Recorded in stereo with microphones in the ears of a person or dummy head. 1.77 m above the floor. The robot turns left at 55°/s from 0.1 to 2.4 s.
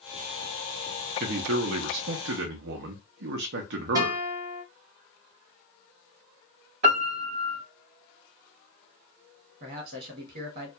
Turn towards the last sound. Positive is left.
turn(degrees=-40)  # may be behind; listen again after turning